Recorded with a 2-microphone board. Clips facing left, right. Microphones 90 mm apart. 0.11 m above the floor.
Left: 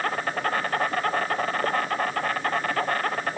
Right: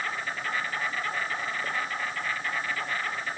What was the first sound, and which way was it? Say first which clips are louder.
An insect: left 6 dB; 55° left (ahead or behind).